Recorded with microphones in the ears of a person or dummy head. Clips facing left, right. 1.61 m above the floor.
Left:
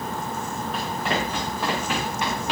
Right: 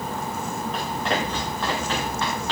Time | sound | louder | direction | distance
0.7 | running footsteps | even | 5° left (ahead or behind) | 5 m